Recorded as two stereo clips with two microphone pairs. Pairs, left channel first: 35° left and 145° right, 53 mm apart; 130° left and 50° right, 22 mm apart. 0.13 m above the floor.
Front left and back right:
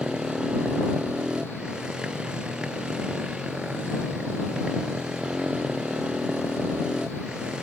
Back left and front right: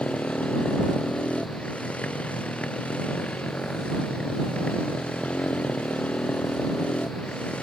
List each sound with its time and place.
0.0 s a motorcycle: 140° left